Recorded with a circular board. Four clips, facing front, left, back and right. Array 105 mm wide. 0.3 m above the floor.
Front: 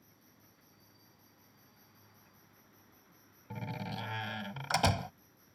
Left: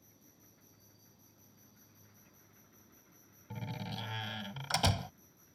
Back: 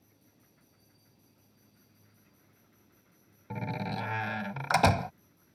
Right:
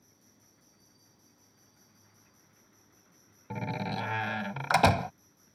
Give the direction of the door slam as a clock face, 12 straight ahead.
4 o'clock.